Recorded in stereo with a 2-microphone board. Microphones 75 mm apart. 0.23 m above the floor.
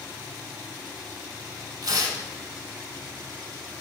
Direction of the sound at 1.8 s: 60° right (ahead or behind).